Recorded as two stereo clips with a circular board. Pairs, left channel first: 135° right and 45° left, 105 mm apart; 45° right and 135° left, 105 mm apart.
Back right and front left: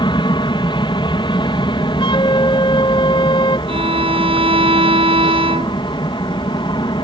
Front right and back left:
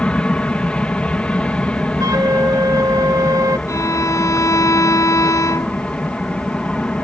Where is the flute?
175° right.